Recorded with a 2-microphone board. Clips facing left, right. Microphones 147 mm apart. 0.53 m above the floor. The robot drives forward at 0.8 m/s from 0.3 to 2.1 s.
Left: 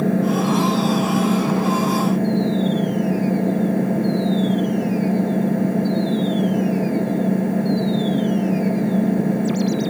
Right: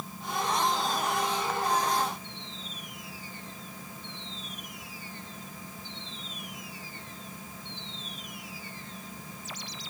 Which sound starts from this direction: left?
An engine running, at 0.0 s.